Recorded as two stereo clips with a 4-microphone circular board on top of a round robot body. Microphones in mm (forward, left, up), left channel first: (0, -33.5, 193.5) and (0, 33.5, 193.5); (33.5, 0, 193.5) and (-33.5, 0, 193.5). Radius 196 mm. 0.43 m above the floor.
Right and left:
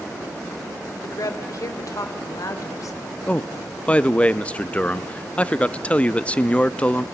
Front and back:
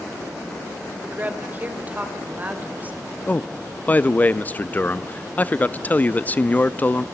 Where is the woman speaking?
115° right, 3 m.